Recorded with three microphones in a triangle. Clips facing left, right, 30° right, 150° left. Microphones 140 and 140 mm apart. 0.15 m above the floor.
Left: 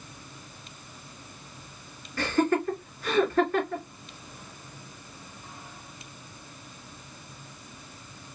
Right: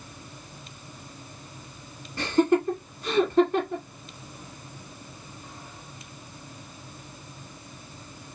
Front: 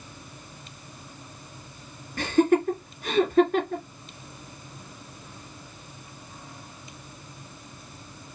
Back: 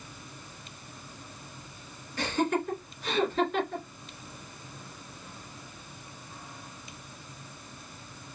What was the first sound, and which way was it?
Laughter, 25° right.